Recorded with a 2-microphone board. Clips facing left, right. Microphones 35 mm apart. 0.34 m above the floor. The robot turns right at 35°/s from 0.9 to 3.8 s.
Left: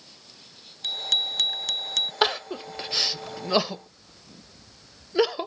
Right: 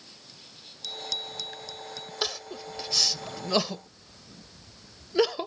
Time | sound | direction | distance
0.8 | a bicycle bell | 45° left | ?
2.2 | crying | 45° left (ahead or behind) | ?